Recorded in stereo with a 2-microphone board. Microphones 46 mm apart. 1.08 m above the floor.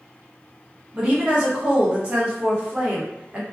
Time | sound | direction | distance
0.9 | a woman speaking | 25° right (ahead or behind) | 0.9 m